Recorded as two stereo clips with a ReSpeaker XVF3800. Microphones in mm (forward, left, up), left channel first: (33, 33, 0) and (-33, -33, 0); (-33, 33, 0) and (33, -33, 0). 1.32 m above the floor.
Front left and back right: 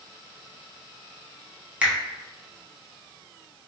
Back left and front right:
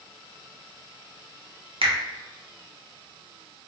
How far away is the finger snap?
About 0.6 m.